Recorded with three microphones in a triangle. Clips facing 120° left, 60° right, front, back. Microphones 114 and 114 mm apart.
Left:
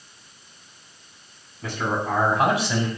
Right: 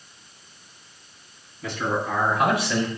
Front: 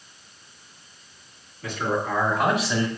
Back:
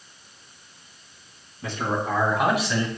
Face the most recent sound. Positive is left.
turn(degrees=65)